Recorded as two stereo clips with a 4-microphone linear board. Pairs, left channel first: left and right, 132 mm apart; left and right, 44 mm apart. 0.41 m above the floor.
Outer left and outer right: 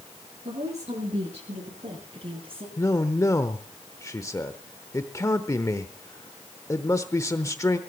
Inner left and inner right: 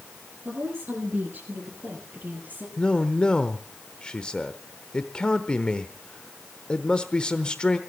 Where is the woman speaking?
60° right (ahead or behind), 7 m; by 2.7 s 50° right (ahead or behind), 9.5 m.